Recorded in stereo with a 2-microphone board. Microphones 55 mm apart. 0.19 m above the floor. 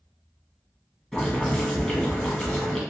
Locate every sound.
1.1 s boiling: 10° left (ahead or behind), 1.0 m